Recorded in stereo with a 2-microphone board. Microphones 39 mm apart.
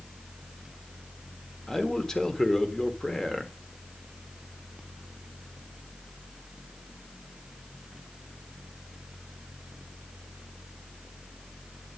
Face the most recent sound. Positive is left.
turn(degrees=15)  # may be behind; listen again after turning